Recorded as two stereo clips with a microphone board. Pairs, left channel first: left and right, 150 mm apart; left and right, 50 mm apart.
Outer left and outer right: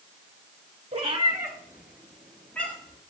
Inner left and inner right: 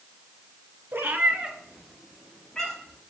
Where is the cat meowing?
45° right (ahead or behind), 0.9 m; by 3.0 s 15° left (ahead or behind), 2.0 m.